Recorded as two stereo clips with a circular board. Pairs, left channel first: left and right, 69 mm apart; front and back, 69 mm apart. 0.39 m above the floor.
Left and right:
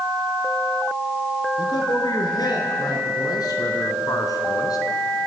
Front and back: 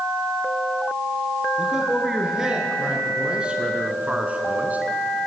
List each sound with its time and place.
1.6 s a man speaking: 95° left, 6 m; by 4.8 s 115° left, 4 m